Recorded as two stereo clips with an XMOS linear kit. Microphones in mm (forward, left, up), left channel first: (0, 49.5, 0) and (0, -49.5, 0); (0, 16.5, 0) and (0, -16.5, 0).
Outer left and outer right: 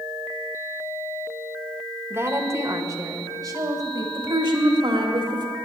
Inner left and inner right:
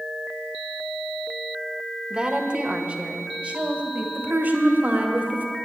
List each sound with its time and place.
2.1 s a woman speaking: 25° right (ahead or behind), 1.0 m; by 4.0 s 45° right (ahead or behind), 2 m
4.2 s a woman speaking: 55° right (ahead or behind), 1.6 m